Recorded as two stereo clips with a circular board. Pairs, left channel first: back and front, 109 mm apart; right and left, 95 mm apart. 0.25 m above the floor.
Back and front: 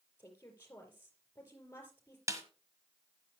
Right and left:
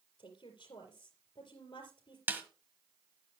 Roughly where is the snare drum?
Ahead left.